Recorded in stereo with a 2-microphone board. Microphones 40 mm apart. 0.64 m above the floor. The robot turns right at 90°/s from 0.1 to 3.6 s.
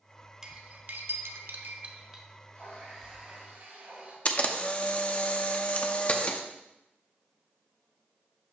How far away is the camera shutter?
About 0.7 m.